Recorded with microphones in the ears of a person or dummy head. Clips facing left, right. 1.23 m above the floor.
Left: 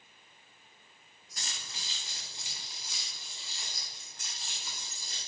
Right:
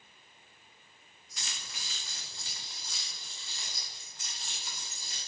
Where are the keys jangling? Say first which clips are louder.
Even; 35° left (ahead or behind), 0.9 m; by 5.2 s centre (ahead or behind), 2.5 m.